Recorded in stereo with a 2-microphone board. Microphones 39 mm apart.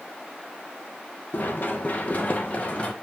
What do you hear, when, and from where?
1.3 s running footsteps: 55° left (ahead or behind), 2 m; by 2.9 s 35° left (ahead or behind), 2.5 m